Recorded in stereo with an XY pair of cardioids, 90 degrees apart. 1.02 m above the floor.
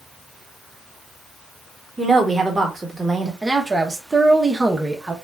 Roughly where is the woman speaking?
Ahead right.